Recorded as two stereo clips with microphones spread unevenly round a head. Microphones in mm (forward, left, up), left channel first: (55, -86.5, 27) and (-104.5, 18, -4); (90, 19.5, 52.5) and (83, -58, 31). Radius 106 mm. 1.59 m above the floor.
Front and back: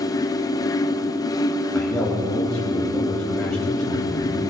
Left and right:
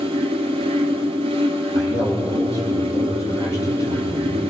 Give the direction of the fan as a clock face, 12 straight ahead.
3 o'clock.